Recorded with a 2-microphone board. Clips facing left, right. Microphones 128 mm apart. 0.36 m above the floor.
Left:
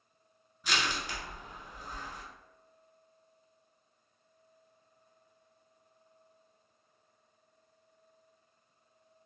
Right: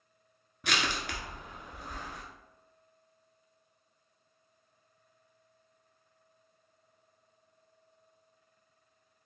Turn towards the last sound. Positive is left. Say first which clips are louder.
# right 1 dB
turn(degrees=-65)  # may be behind; listen again after turning